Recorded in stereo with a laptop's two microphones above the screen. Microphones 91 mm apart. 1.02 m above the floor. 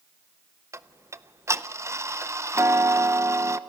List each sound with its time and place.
0.7 s ticking: 30° right (ahead or behind), 0.5 m